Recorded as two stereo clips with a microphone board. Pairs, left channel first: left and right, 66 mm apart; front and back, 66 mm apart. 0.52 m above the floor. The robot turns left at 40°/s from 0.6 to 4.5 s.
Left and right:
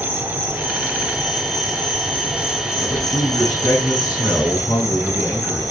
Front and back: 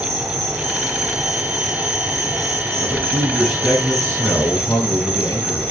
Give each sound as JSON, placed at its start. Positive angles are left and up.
{"t": 0.0, "sound": "an insect", "azimuth_deg": -145, "distance_m": 3.5}
{"t": 2.8, "sound": "a man speaking", "azimuth_deg": 110, "distance_m": 5.5}